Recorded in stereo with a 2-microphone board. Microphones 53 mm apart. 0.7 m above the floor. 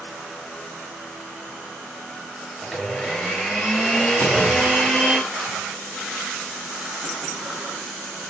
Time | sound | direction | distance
2.6 | a blender | 10° left (ahead or behind) | 3.5 m
4.2 | a clunk | 45° left (ahead or behind) | 5.5 m